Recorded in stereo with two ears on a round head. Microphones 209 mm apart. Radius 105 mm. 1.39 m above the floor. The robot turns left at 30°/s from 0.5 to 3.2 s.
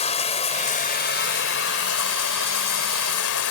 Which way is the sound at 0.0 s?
150° left.